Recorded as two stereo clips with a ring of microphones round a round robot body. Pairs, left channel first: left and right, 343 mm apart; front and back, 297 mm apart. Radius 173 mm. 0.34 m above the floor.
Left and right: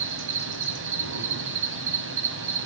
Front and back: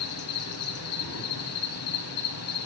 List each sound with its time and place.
0.0 s an insect: 40° right, 3 m